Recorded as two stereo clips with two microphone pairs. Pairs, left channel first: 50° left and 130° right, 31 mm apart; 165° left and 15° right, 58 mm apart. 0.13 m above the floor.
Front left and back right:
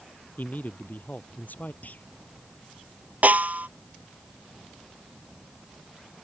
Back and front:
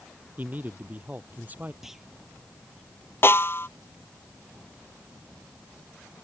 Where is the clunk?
65° left.